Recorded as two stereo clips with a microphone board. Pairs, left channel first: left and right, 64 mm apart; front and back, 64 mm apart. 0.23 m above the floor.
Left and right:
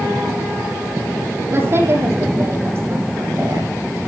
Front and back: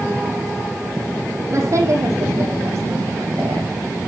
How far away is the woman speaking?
About 8 m.